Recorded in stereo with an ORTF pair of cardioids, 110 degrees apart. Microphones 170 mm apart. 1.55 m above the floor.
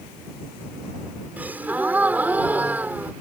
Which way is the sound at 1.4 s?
10° right.